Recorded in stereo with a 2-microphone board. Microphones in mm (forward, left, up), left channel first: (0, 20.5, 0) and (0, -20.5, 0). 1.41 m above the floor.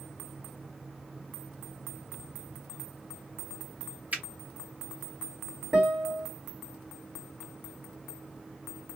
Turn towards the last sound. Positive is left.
turn(degrees=-40)  # may be behind; listen again after turning